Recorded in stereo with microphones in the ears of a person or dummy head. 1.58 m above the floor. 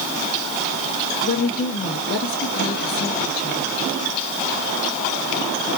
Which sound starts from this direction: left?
A woman speaking, at 1.2 s.